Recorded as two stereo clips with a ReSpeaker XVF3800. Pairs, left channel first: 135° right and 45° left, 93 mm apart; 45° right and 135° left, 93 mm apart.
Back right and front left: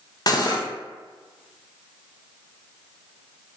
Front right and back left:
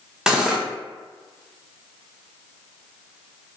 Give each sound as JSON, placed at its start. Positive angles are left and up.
{"t": 0.3, "sound": "cutlery clinking", "azimuth_deg": -145, "distance_m": 0.5}